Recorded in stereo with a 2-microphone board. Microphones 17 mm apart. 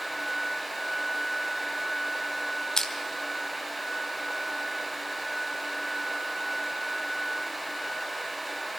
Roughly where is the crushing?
Left.